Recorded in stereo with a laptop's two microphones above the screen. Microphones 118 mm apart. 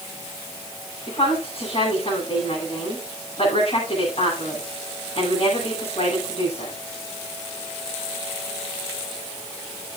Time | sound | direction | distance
1.1 | a woman speaking | 55° left (ahead or behind) | 9 m